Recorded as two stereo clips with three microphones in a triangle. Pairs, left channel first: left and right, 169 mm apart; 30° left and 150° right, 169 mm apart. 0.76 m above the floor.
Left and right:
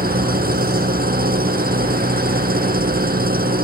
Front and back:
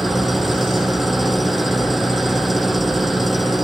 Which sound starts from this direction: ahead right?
An engine running, at 0.0 s.